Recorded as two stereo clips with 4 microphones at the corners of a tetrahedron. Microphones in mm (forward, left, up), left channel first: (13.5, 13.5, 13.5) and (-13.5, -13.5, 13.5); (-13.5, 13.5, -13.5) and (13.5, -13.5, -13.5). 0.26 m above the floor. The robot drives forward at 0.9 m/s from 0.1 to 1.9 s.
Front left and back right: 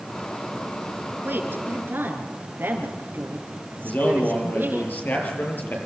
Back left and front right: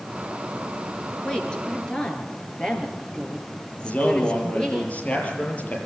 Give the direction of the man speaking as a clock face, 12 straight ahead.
9 o'clock.